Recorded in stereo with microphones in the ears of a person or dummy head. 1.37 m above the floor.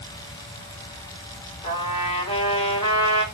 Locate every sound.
1.6 s a trumpet: 35° left (ahead or behind), 4.5 m